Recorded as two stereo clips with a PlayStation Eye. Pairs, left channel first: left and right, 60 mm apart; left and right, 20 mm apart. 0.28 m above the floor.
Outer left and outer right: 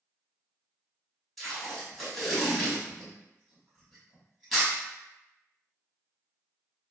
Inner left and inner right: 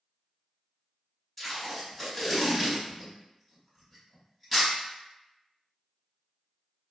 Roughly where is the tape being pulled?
Centre.